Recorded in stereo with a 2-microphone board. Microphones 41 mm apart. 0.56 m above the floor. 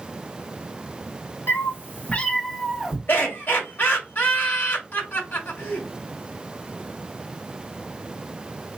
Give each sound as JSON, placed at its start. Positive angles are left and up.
{"t": 1.5, "sound": "a cat meowing", "side_deg": 75, "distance_m": 1.1}
{"t": 3.1, "sound": "laughter", "side_deg": 45, "distance_m": 1.8}